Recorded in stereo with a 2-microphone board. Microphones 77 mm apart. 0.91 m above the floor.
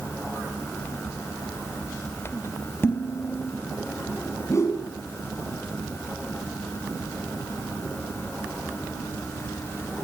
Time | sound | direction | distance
2.8 | dishes clattering | 35° left (ahead or behind) | 4 m
4.5 | a whoosh | 40° left (ahead or behind) | 5.5 m